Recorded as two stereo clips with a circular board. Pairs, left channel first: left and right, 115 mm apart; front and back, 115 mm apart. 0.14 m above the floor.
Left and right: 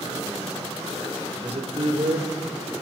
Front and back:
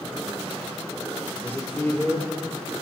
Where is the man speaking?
70° right, 2.5 m.